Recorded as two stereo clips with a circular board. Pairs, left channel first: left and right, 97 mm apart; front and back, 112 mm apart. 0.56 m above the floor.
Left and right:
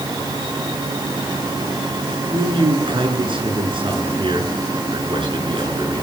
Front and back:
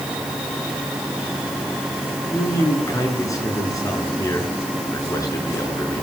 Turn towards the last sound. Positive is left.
turn(degrees=-60)